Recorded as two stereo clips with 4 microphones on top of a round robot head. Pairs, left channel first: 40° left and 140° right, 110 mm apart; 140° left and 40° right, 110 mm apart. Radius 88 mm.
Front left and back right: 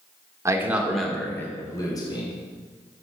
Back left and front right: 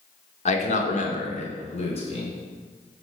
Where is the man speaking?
155° left, 1.7 m; by 2.3 s 95° left, 3 m.